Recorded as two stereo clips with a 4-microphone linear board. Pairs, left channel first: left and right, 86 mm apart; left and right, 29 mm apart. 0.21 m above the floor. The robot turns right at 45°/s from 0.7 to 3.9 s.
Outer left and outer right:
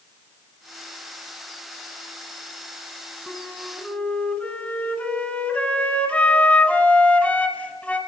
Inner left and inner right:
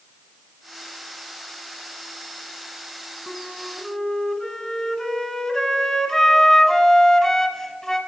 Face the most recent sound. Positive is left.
turn(degrees=15)  # may be behind; listen again after turning